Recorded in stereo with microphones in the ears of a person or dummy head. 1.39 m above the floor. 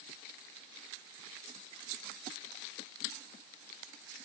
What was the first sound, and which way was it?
Only background noise.